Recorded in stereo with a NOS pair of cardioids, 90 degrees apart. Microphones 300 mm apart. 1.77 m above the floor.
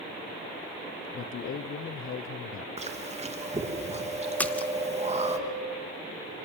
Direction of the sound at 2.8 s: 20° right.